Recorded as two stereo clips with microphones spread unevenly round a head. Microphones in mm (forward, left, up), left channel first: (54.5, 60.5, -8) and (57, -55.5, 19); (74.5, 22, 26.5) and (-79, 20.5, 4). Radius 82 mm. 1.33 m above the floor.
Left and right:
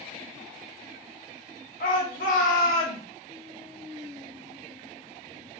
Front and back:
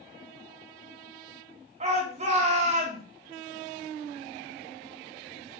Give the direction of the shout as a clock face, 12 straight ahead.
8 o'clock.